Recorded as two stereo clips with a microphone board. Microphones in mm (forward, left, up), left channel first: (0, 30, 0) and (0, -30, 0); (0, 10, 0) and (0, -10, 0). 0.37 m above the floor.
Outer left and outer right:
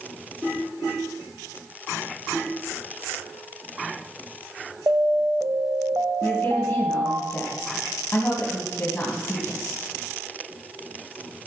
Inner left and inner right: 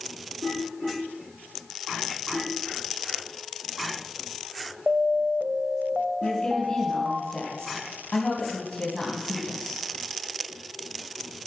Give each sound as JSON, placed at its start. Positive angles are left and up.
{"t": 4.9, "sound": "an alarm", "side_deg": -60, "distance_m": 1.1}
{"t": 6.2, "sound": "a woman speaking", "side_deg": 30, "distance_m": 2.5}